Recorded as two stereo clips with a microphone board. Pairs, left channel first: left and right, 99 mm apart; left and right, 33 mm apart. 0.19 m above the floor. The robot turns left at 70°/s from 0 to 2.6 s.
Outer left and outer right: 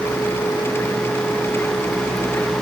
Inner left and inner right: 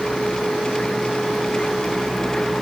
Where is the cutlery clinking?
No cutlery clinking in this recording.